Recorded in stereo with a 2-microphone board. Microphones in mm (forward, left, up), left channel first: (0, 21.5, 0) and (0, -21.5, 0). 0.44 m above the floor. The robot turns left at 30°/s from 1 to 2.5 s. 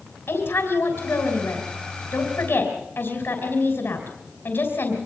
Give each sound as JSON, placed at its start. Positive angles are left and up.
{"t": 0.3, "sound": "a woman speaking", "azimuth_deg": 105, "distance_m": 3.5}